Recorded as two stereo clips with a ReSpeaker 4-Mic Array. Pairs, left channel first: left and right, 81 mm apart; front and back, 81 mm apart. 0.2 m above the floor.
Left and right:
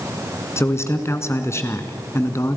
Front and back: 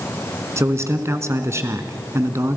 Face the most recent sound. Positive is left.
turn(degrees=135)